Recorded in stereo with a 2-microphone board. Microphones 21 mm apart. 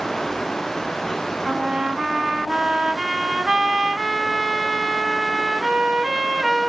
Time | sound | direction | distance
1.4 | a trumpet | 40° right (ahead or behind) | 1.8 m